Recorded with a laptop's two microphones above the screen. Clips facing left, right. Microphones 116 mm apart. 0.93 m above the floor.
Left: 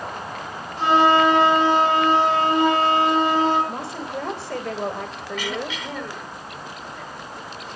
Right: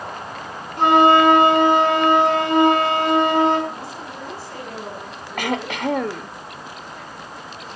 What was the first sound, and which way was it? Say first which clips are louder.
A flute: right 3 dB; 60° right (ahead or behind).